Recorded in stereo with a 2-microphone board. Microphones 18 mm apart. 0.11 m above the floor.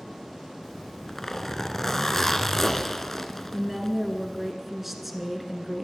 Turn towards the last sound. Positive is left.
turn(degrees=-10)  # may be behind; listen again after turning